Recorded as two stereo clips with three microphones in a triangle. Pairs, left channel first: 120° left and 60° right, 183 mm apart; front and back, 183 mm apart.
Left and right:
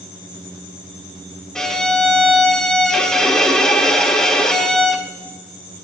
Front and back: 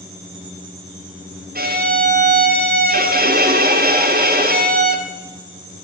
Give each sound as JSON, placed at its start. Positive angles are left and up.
{"t": 1.6, "sound": "a violin", "azimuth_deg": -155, "distance_m": 1.3}